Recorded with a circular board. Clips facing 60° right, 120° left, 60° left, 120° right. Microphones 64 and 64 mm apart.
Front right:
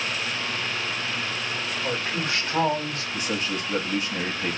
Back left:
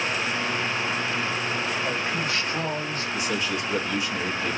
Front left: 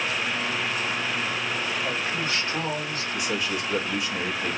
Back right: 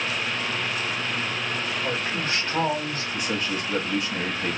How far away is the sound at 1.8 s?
About 2.5 m.